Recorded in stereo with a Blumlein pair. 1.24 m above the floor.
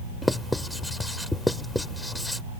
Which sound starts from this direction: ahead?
Writing, at 0.2 s.